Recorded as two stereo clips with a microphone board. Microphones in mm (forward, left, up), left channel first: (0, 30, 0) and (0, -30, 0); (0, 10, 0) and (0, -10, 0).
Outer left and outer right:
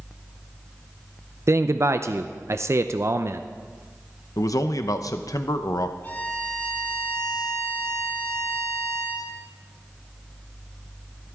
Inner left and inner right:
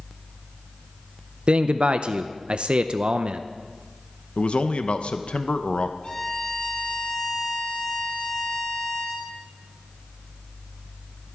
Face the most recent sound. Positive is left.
turn(degrees=35)  # may be behind; listen again after turning